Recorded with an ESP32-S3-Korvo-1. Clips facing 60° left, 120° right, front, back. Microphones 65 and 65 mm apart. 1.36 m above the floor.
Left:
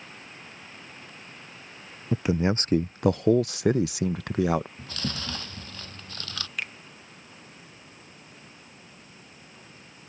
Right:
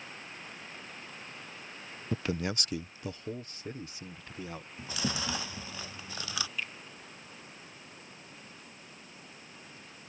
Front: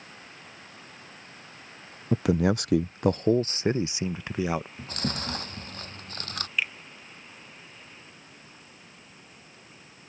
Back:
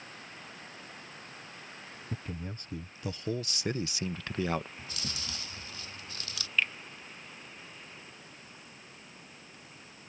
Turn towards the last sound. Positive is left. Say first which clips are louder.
# left 8 dB, even
turn(degrees=80)